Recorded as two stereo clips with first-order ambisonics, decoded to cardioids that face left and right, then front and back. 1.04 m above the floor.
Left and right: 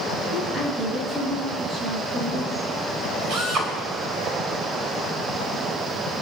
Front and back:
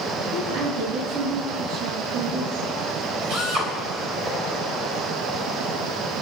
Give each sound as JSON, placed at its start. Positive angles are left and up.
{"t": 0.3, "sound": "a woman speaking", "azimuth_deg": -165, "distance_m": 6.0}
{"t": 3.3, "sound": "a drill", "azimuth_deg": -140, "distance_m": 5.0}